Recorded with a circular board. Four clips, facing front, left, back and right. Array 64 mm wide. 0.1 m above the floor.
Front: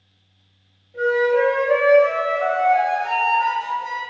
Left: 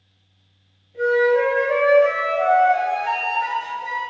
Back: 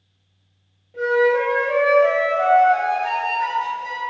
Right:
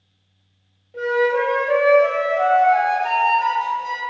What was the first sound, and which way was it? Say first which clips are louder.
A flute: left 2 dB, even; 100° right.